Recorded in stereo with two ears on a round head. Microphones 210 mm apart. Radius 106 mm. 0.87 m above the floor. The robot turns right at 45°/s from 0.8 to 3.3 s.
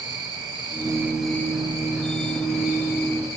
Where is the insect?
20° right, 8.5 m; by 3.4 s 95° left, 8.5 m.